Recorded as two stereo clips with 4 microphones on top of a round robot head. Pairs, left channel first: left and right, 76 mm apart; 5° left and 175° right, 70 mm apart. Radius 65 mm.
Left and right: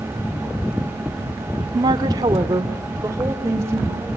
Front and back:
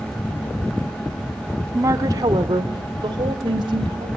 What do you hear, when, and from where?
1.7 s a woman speaking: 120° right, 1.5 m; by 4.1 s 155° right, 4.5 m